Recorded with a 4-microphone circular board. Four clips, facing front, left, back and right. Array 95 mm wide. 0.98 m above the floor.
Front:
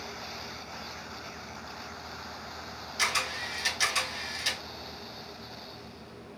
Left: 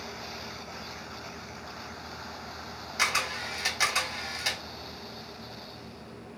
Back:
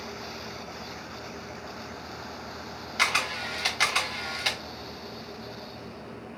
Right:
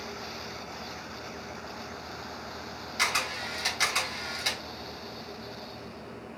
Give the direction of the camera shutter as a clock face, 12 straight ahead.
6 o'clock.